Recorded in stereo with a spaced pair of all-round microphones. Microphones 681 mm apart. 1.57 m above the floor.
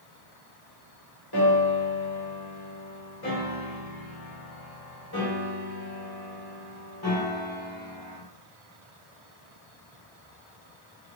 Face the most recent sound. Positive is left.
turn(degrees=35)  # may be behind; listen again after turning